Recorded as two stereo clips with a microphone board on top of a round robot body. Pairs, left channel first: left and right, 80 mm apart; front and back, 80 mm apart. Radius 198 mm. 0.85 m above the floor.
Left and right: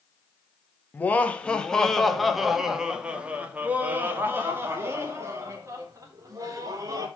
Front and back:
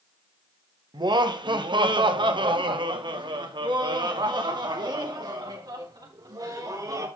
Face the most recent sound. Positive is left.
turn(degrees=-140)